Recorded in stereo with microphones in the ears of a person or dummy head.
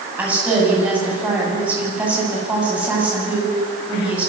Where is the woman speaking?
15° right (ahead or behind), 9.5 m.